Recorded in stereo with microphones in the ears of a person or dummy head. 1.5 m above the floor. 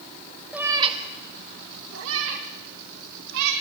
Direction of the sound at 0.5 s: 5° right (ahead or behind).